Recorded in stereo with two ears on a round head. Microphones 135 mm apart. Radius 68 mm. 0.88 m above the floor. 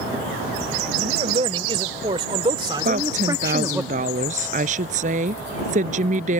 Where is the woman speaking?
55° right (ahead or behind).